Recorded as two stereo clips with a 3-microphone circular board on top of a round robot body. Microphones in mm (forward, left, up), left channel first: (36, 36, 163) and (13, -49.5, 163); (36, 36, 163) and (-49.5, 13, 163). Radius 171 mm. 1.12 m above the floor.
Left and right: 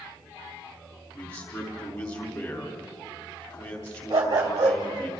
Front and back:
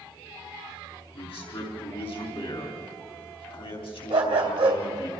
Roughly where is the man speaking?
Ahead left.